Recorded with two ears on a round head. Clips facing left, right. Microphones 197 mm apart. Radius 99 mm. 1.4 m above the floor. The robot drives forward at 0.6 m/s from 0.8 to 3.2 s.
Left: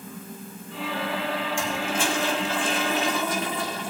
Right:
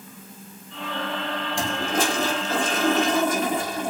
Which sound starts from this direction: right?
A toilet flushing, at 1.6 s.